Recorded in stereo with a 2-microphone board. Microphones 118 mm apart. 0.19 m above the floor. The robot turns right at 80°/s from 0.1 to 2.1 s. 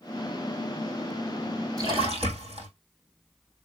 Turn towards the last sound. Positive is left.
turn(degrees=-60)  # may be behind; listen again after turning